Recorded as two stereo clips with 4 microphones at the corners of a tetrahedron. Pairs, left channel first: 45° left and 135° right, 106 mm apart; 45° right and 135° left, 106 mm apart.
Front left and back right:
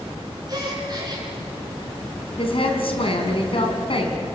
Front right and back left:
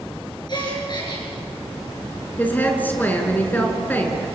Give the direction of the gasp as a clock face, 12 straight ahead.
3 o'clock.